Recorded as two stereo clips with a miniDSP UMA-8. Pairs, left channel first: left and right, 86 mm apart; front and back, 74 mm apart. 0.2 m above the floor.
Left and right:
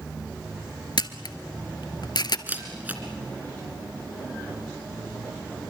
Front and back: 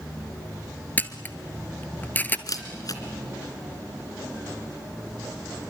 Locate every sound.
1.0 s a camera shutter: 65° left, 1.1 m
2.5 s a camera shutter: 25° right, 2.5 m